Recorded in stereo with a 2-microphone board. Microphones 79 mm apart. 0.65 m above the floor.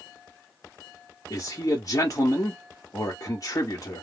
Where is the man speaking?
45° left (ahead or behind), 1.1 m.